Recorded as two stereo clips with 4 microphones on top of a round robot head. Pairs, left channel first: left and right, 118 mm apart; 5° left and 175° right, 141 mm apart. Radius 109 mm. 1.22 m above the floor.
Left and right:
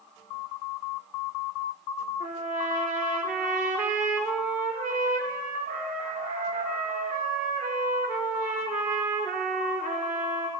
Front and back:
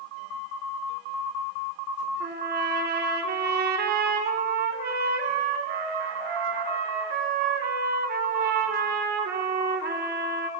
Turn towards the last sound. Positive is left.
turn(degrees=-170)